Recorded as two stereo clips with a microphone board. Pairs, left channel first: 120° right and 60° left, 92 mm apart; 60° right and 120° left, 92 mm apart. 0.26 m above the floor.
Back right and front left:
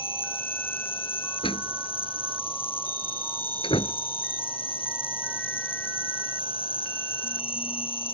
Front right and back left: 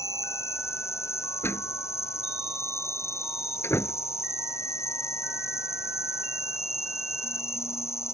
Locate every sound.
0.0 s an insect: 120° right
1.4 s a door slam: 120° right